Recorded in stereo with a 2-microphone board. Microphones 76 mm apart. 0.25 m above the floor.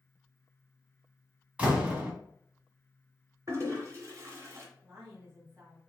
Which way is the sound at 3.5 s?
40° right (ahead or behind).